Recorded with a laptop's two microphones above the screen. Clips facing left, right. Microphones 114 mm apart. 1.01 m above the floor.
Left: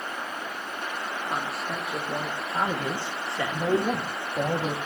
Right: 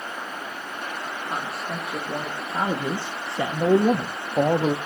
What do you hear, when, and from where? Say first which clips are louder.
1.3 s a man speaking: right 1 dB; 5° left (ahead or behind), 1.3 m; by 4.8 s 40° right (ahead or behind), 0.8 m